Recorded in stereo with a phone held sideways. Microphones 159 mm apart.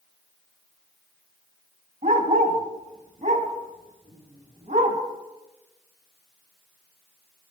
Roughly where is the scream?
No scream in this recording.